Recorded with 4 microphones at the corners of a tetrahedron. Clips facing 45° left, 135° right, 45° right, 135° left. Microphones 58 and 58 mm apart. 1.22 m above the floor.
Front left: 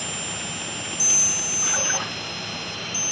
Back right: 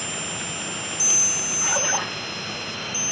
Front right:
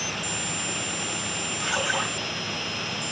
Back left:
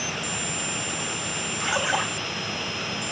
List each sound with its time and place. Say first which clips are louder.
1.6 s a splash: back right 3 dB, back left 2 dB; 170° right, 4.5 m